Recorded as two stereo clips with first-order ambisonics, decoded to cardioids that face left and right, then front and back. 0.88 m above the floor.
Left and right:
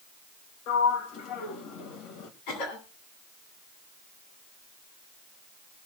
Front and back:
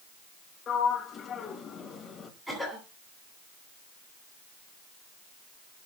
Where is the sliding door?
70° left, 2 m.